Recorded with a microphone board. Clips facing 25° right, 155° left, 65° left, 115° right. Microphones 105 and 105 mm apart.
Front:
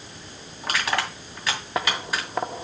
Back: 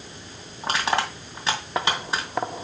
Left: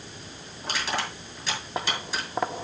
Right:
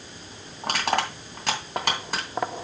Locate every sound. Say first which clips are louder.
0.6 s crushing: back 2 dB, right 6 dB; 140° right, 2.5 m